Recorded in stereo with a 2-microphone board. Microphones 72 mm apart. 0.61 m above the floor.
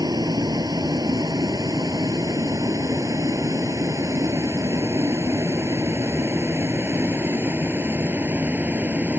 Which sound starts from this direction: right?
A vehicle, at 0.0 s.